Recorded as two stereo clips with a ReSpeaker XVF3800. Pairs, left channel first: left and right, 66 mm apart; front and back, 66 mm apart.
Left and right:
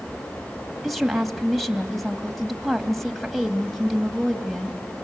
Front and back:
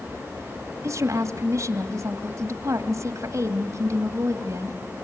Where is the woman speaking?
Straight behind, 2.5 m.